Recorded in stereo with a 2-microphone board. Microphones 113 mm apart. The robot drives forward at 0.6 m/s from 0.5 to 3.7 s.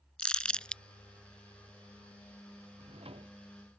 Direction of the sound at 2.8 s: 60° right (ahead or behind).